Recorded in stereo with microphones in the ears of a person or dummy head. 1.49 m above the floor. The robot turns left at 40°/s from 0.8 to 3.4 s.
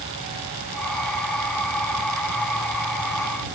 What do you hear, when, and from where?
Only background noise.